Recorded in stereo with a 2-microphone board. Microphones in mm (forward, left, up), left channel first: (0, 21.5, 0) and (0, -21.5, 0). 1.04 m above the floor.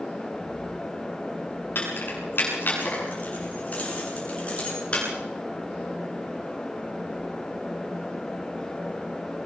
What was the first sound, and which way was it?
Keys jangling, 55° left (ahead or behind).